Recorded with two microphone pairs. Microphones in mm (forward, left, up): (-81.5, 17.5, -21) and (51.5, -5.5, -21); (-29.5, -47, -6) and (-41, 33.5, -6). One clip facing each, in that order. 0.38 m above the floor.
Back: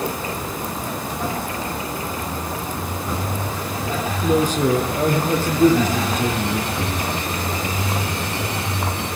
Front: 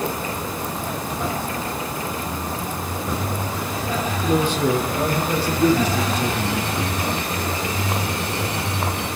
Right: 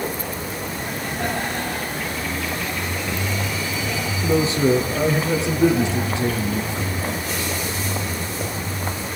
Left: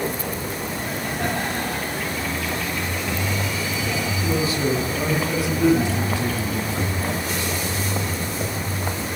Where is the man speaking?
140° right, 6 m; by 6.7 s 150° right, 7.5 m.